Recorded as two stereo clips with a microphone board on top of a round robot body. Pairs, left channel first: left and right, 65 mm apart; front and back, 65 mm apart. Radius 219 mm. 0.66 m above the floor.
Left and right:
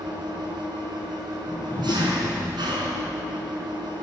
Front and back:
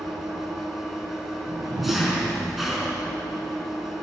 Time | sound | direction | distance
0.0 | an engine running | 95° right | 5 m
1.4 | a whoosh | 155° left | 4.5 m